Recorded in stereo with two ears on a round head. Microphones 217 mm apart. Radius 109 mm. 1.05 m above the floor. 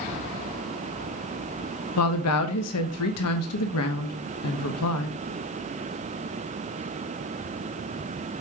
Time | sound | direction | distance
2.0 | a woman speaking | 70° left (ahead or behind) | 1.1 m